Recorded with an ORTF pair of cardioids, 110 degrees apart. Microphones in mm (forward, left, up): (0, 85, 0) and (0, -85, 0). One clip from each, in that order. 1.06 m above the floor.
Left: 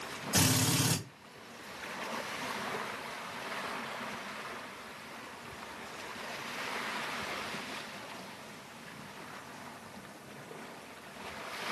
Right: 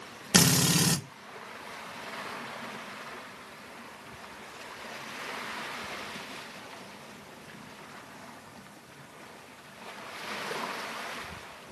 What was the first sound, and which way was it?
A drill, 60° right.